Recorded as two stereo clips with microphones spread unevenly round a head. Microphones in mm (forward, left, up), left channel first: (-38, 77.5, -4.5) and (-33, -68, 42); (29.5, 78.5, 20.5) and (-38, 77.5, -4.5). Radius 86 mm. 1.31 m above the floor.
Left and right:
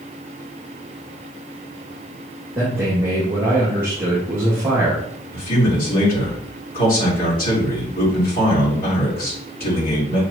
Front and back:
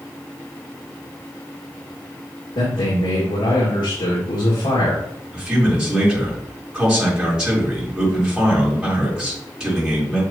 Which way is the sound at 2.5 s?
5° right.